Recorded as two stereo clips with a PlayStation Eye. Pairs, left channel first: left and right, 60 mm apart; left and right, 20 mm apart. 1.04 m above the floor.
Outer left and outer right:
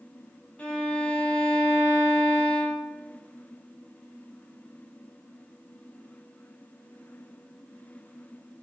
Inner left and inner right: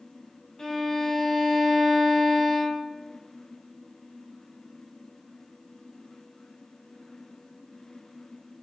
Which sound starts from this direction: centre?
A violin, at 0.6 s.